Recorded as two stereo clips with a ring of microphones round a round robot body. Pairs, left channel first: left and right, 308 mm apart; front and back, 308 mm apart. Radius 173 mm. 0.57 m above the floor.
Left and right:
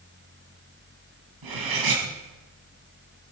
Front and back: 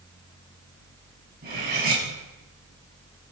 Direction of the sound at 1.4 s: 115° right.